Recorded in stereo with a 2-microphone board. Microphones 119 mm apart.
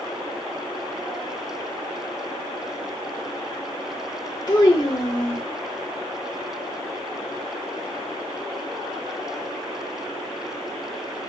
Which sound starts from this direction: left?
A child speaking, at 4.5 s.